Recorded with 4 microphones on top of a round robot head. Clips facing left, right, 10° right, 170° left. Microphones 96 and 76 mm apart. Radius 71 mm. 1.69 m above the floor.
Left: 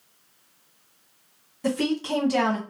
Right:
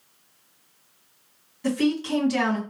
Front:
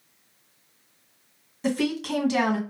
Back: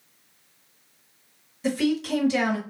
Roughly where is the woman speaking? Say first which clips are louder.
Right 2 dB, back 2 dB; ahead left.